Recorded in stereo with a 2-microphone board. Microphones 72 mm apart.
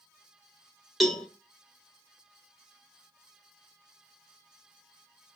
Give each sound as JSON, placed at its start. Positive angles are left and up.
{"t": 1.0, "sound": "a cowbell", "side_deg": 0, "distance_m": 0.9}